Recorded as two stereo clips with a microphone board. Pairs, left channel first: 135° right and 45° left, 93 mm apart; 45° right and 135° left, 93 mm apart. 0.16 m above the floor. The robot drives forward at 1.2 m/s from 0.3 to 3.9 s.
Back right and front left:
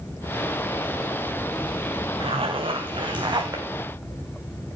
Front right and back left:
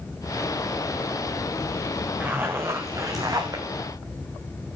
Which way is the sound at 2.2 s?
65° left.